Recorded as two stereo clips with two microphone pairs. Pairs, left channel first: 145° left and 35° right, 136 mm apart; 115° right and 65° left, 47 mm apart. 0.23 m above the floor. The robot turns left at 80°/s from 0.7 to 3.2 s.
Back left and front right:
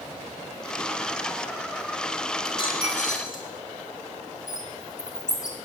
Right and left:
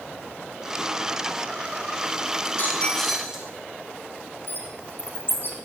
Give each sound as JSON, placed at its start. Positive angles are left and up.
{"t": 2.5, "sound": "a dropped coin", "azimuth_deg": -150, "distance_m": 1.6}
{"t": 4.5, "sound": "a bird", "azimuth_deg": -155, "distance_m": 1.2}